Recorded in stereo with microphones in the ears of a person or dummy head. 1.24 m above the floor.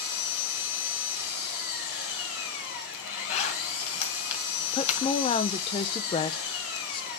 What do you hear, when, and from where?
0.0 s an engine running: 75° left (ahead or behind), 5.5 m
3.3 s a zipper: 45° left (ahead or behind), 2.5 m
4.7 s a woman speaking: 35° left (ahead or behind), 0.6 m